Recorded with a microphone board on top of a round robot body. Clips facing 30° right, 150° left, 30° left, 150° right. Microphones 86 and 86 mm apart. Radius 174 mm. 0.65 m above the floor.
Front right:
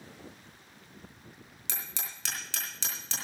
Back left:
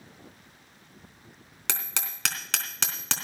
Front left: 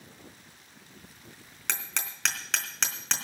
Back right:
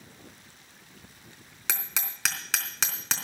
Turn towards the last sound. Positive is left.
turn(degrees=125)